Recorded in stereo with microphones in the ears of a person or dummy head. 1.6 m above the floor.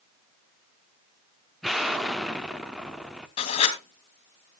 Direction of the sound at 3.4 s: 30° left (ahead or behind).